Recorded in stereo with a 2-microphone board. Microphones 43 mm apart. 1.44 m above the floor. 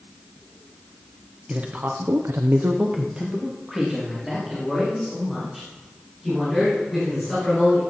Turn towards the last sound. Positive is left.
turn(degrees=0)  # may be behind; listen again after turning